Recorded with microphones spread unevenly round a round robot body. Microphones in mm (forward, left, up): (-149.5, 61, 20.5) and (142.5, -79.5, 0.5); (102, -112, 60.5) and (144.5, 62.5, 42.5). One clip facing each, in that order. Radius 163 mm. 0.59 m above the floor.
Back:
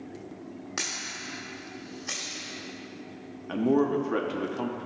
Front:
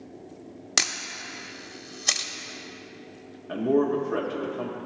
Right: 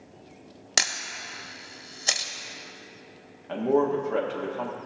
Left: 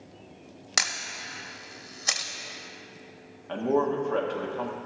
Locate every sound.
0.8 s a camera shutter: 40° right, 1.0 m
3.5 s a man speaking: 170° left, 1.0 m